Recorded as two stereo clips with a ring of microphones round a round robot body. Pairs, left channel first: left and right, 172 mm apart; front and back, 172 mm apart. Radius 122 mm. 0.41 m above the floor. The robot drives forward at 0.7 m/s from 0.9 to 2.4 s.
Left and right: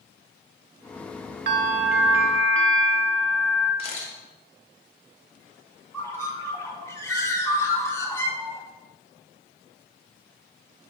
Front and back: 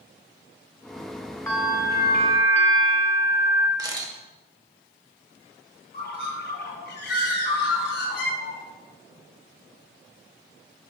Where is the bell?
85° right, 0.6 m; by 3.7 s 135° right, 0.9 m.